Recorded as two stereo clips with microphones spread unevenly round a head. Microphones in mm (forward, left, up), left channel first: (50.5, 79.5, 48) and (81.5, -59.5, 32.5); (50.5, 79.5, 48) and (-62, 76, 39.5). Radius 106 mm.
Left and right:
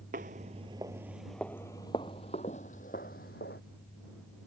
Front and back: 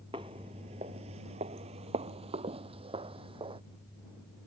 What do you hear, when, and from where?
0.1 s footsteps: 115° right; by 3.6 s 145° left